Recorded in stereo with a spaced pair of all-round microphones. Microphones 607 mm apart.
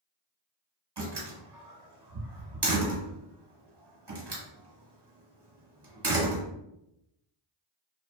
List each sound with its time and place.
1.0 s a door slam: 40° right (ahead or behind), 1.1 m